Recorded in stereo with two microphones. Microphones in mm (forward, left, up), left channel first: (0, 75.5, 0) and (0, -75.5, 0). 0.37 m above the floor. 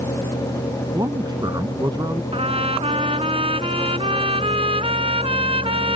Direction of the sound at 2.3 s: 40° right (ahead or behind).